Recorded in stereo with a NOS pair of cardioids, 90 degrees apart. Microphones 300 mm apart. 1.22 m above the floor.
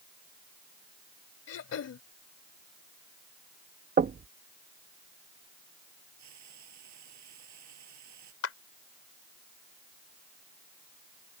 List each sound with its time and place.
1.5 s throat clearing: 55° left
4.0 s knocking: 30° right
6.2 s frying: 65° right
8.4 s a clap: 50° left